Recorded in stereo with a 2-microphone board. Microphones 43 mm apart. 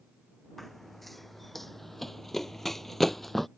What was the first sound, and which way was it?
Running footsteps, centre (ahead or behind).